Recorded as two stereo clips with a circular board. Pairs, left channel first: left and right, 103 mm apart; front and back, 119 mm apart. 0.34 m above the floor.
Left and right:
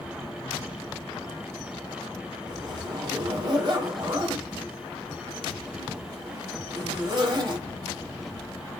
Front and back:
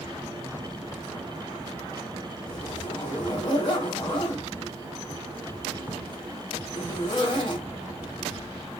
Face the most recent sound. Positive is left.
turn(degrees=-45)